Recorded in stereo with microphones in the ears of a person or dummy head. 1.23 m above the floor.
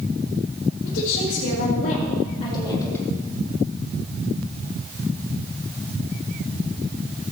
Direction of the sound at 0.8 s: 70° left (ahead or behind).